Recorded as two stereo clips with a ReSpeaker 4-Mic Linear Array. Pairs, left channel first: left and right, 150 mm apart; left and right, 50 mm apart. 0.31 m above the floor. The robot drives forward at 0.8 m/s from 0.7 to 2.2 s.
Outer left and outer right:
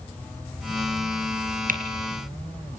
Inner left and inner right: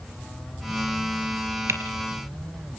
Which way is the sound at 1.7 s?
65° right (ahead or behind).